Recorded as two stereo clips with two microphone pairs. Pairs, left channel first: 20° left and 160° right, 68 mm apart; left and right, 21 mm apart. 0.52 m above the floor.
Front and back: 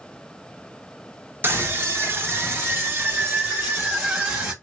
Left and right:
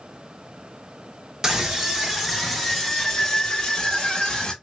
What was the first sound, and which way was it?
A scream, 135° right.